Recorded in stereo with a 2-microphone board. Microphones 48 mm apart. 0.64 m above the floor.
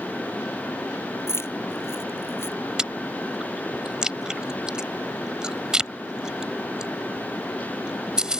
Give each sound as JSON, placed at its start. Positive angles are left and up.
{"t": 1.3, "sound": "keys jangling", "side_deg": 55}
{"t": 2.8, "sound": "chewing", "side_deg": -15}